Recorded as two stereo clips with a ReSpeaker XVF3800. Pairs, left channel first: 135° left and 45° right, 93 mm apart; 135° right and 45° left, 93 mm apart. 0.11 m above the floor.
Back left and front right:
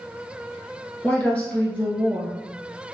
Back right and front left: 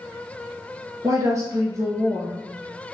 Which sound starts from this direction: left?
A woman speaking, at 1.0 s.